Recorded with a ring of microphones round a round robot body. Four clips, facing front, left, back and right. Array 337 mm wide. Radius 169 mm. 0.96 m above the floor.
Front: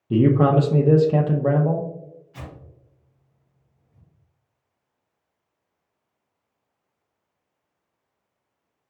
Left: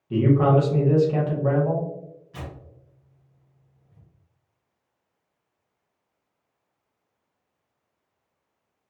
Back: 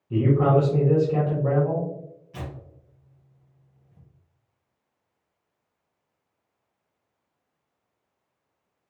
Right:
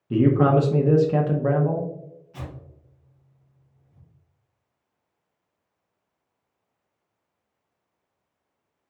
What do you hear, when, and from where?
0.1 s a man speaking: 20° right, 0.7 m
2.3 s tearing paper: 150° left, 1.7 m